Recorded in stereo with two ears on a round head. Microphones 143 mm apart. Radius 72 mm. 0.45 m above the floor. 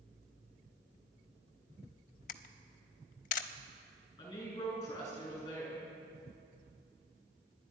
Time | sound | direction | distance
2.3 | a camera shutter | 50° left (ahead or behind) | 0.6 m
4.2 | a woman speaking | 20° left (ahead or behind) | 5.5 m